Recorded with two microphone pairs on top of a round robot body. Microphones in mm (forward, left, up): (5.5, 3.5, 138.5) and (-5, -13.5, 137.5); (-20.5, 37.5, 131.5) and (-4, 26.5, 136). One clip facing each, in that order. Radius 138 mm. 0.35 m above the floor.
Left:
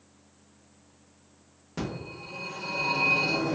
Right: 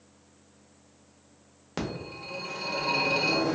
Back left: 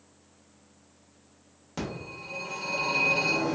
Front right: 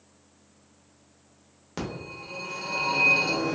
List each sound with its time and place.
1.8 s a phone ringing: 110° right, 1.0 m